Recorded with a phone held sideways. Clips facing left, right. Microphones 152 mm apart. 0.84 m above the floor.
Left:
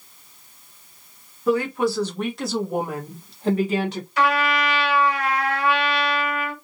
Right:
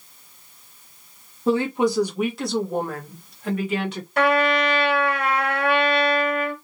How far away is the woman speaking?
About 1.0 m.